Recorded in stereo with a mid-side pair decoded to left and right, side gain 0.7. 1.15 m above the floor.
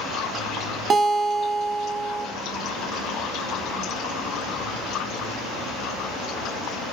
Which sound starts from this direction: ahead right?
A guitar, at 0.9 s.